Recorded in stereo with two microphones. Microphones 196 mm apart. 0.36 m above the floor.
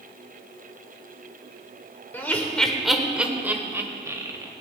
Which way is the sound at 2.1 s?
10° left (ahead or behind).